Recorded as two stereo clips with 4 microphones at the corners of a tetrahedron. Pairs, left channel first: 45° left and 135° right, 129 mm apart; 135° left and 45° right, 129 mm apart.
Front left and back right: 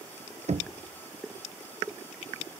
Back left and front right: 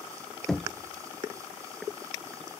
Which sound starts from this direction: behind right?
Knocking, at 0.5 s.